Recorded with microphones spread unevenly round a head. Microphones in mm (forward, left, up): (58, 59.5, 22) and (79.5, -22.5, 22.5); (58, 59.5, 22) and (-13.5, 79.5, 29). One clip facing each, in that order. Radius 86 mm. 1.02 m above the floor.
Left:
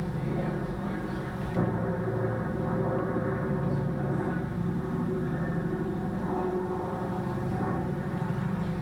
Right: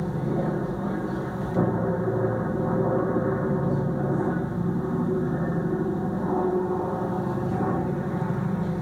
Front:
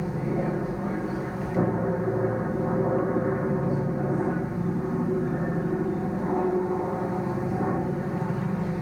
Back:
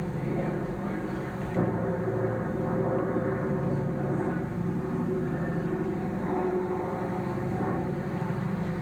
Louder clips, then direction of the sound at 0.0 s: Right 5 dB, front 3 dB; 80° right.